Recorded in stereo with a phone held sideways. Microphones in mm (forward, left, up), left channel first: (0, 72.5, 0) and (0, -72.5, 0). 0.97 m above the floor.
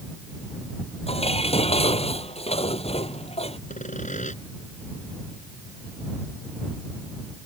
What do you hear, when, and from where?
1.1 s dishes clattering: 40° left (ahead or behind)
3.7 s sawing: 55° left (ahead or behind)